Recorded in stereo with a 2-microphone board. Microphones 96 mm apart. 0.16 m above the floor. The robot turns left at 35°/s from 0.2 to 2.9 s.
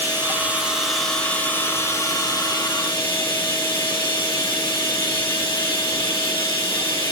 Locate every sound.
0.0 s running water: 155° right, 4.5 m; by 7.1 s 110° left, 4.5 m